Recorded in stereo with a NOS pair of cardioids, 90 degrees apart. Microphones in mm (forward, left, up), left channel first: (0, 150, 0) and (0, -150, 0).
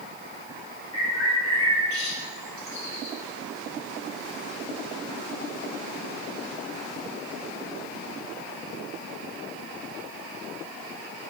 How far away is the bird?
About 1.0 m.